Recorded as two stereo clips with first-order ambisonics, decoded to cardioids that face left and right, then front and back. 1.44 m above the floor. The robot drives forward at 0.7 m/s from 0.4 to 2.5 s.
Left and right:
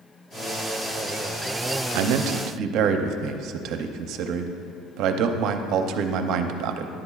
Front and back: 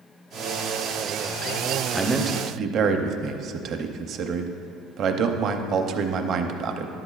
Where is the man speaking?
85° right, 0.5 m; by 6.9 s 125° right, 0.6 m.